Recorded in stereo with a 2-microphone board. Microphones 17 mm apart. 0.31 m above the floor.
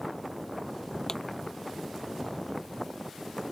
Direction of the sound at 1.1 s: 35° left (ahead or behind).